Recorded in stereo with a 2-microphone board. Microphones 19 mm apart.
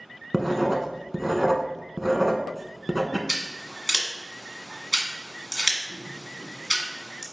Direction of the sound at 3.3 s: 30° right (ahead or behind).